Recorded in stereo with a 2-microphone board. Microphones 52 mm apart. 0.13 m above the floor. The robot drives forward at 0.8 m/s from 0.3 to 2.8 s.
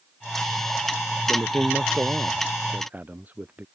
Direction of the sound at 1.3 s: 30° right (ahead or behind).